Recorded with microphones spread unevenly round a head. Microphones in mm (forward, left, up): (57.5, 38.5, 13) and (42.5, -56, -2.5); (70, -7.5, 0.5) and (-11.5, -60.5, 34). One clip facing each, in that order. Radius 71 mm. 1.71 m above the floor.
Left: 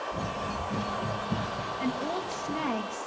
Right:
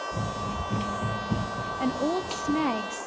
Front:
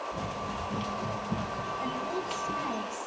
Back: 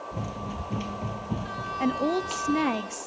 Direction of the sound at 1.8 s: 165° right.